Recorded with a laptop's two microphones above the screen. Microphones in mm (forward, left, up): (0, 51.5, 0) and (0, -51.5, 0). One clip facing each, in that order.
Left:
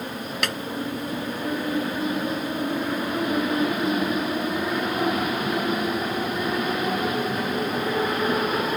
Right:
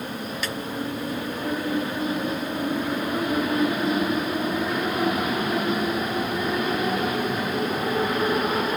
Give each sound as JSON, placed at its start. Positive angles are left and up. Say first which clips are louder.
{"t": 0.4, "sound": "a snare drum", "louder": "left 4 dB", "side_deg": 75}